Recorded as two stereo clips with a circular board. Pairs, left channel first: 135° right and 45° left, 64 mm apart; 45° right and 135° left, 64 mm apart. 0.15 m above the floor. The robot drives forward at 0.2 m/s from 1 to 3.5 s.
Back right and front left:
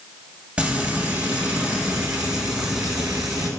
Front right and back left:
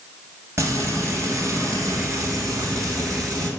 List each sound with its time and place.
0.6 s frying: 110° left, 1.3 m; by 3.5 s 135° left, 1.5 m